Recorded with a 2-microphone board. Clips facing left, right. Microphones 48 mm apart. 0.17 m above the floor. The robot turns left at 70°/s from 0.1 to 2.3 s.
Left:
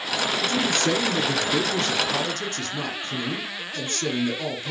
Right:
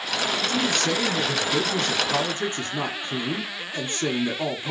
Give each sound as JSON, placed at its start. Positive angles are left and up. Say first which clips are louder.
{"t": 0.4, "sound": "a man speaking", "louder": "left 2 dB", "side_deg": 20, "distance_m": 1.5}